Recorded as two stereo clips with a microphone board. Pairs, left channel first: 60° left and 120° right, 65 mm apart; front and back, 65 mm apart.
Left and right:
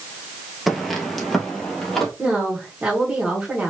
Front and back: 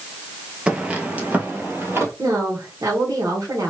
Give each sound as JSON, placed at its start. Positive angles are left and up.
{"t": 0.7, "sound": "footsteps", "azimuth_deg": 140, "distance_m": 1.2}
{"t": 2.2, "sound": "a woman speaking", "azimuth_deg": 165, "distance_m": 1.6}